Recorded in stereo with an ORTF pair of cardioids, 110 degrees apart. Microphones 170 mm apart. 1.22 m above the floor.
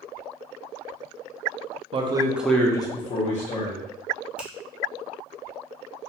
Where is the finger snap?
10° right, 0.6 m.